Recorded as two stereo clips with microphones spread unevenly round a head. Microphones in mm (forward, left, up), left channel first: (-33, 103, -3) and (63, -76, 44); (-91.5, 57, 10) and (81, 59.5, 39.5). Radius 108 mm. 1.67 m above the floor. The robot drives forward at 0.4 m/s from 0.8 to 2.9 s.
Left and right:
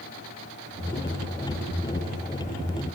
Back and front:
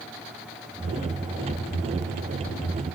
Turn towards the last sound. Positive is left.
No sound to turn to.